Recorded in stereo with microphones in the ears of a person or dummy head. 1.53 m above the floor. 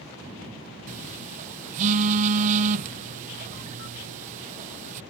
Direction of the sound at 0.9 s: 40° right (ahead or behind).